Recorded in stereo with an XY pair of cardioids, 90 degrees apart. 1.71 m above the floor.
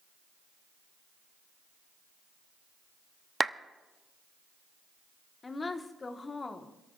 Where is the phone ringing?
No phone ringing in this recording.